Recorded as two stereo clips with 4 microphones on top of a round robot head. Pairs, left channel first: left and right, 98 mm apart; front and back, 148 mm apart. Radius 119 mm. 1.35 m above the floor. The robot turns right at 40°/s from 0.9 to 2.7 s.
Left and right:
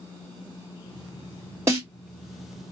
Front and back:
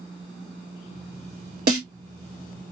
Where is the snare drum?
170° right, 1.7 m; by 1.9 s 160° right, 1.7 m.